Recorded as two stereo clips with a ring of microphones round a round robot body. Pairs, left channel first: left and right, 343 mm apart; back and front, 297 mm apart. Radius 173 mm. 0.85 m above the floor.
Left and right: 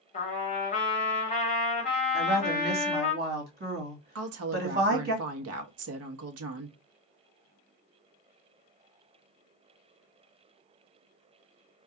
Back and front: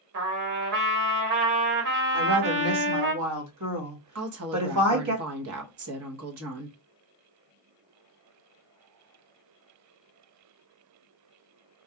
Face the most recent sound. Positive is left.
turn(degrees=-45)